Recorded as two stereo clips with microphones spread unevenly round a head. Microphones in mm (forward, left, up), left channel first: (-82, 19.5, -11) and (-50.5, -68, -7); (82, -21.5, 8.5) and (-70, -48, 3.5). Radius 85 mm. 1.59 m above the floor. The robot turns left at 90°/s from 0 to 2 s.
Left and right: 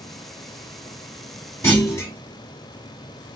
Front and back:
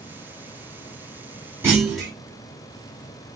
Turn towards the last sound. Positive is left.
turn(degrees=100)